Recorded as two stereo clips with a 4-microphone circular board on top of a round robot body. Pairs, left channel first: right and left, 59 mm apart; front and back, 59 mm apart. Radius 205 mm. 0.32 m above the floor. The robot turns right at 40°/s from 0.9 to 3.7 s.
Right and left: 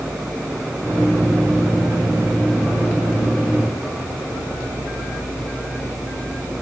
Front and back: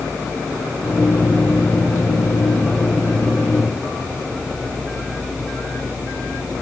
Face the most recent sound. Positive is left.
No sound to turn to.